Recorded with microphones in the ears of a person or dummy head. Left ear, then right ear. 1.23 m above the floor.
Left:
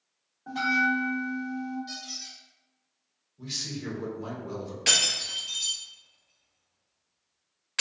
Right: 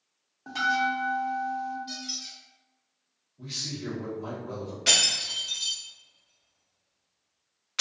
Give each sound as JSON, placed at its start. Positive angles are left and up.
{"t": 0.5, "sound": "a bell", "side_deg": -80, "distance_m": 0.9}
{"t": 1.9, "sound": "a squeak", "side_deg": 20, "distance_m": 1.5}
{"t": 3.4, "sound": "a man speaking", "side_deg": 15, "distance_m": 0.8}
{"t": 4.9, "sound": "breaking glass", "side_deg": 15, "distance_m": 1.3}